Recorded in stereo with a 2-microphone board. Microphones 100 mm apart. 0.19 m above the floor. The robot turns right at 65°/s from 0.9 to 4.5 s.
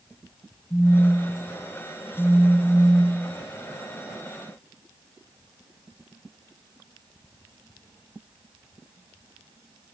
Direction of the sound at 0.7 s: 80° left.